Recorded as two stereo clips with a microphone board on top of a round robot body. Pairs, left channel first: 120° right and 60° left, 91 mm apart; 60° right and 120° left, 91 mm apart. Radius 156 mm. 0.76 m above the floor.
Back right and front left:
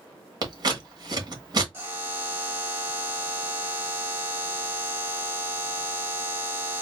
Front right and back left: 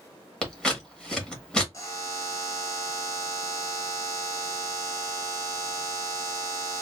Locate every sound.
0.4 s scissors: 20° left, 1.7 m
1.7 s a buzzer: 5° right, 2 m